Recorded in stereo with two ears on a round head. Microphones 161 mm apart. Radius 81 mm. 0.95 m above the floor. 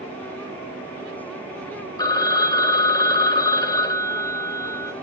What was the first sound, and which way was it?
A phone ringing, 20° left (ahead or behind).